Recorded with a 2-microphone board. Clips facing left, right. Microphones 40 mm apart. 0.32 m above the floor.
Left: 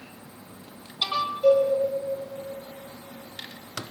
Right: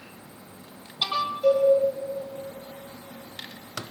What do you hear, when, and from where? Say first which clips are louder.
1.4 s a cowbell: left 2 dB; 5° left (ahead or behind), 10 m